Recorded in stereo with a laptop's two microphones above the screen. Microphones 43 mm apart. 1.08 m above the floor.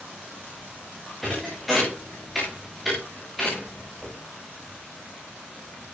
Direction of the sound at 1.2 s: 5° left (ahead or behind).